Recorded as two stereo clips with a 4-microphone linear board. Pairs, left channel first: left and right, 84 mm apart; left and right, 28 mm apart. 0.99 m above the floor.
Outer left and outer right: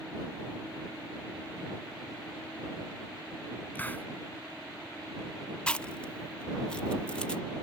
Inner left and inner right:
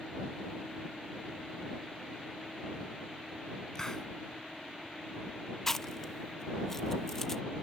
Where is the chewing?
10° left (ahead or behind).